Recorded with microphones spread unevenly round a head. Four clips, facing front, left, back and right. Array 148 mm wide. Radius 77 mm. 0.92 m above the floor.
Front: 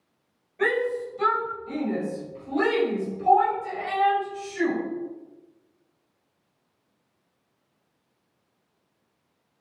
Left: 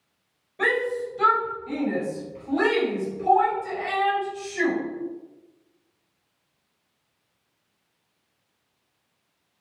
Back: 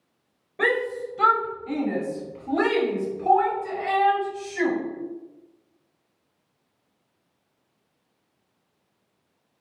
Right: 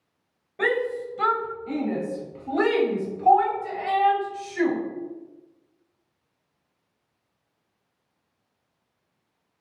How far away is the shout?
About 6.5 m.